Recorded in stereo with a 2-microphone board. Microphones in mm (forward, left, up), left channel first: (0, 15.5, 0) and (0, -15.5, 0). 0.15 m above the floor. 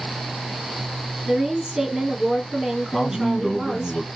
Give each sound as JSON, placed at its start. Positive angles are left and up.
{"t": 1.3, "sound": "a woman speaking", "side_deg": -20, "distance_m": 2.5}
{"t": 2.9, "sound": "a man speaking", "side_deg": 10, "distance_m": 1.5}